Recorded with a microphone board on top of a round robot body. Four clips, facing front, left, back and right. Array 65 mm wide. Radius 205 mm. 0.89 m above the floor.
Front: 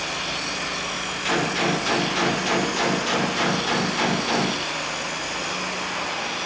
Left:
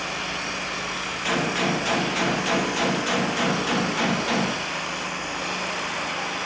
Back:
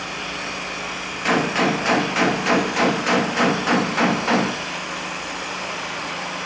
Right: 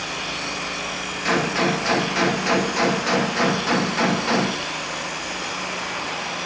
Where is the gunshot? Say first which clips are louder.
Right 4 dB, back 4 dB; 160° right, 2 m.